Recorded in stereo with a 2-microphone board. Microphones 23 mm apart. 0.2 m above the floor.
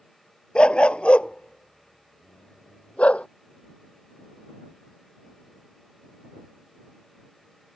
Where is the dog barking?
45° left (ahead or behind); by 3.3 s 65° left (ahead or behind).